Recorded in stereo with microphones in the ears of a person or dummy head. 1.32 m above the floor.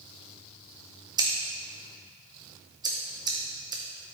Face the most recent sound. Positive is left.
turn(degrees=-20)  # may be behind; listen again after turning